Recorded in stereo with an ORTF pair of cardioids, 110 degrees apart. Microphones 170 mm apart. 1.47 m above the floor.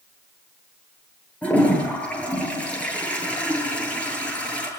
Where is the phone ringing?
No phone ringing in this recording.